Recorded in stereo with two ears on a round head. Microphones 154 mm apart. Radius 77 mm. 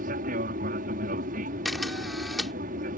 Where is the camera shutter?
Centre (ahead or behind).